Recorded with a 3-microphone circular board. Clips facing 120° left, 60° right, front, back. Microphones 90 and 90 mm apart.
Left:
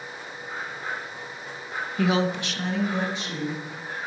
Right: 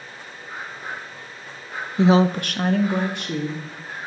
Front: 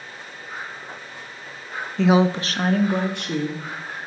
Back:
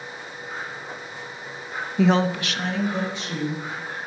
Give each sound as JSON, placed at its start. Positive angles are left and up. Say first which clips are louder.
{"t": 2.0, "sound": "a woman speaking", "louder": "right 7 dB, front 2 dB", "azimuth_deg": -110, "distance_m": 0.5}